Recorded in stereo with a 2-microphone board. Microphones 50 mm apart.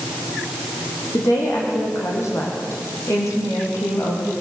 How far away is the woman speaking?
About 7 m.